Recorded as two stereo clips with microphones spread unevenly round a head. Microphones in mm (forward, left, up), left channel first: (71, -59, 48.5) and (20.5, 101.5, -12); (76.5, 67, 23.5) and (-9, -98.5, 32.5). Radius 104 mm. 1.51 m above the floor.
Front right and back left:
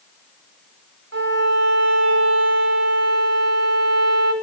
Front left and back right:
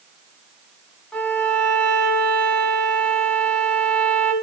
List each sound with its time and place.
1.1 s a violin: 150° left, 1.7 m